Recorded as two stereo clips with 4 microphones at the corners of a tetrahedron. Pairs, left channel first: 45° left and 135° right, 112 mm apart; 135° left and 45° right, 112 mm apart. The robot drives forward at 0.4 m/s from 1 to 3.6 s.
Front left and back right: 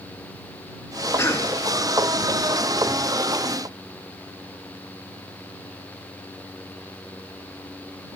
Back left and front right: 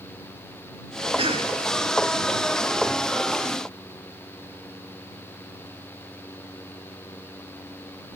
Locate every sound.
1.2 s a cough: 20° right, 3.5 m